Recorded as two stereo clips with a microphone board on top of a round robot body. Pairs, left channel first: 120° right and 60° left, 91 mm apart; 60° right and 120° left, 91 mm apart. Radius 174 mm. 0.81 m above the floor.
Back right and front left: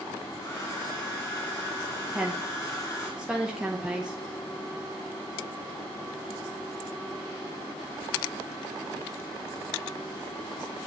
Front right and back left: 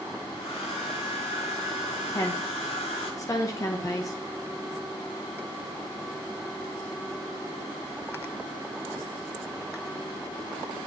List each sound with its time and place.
0.4 s a hair dryer: 65° right, 0.7 m
2.1 s a woman speaking: 20° right, 1.1 m